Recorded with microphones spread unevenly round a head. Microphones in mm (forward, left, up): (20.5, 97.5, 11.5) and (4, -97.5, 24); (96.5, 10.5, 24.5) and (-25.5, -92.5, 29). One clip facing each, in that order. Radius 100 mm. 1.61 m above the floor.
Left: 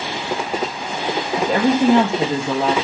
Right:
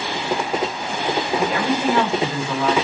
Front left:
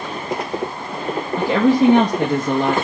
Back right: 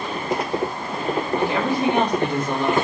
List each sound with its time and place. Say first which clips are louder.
1.4 s a woman speaking: left 8 dB, front left 10 dB; 30° left, 2 m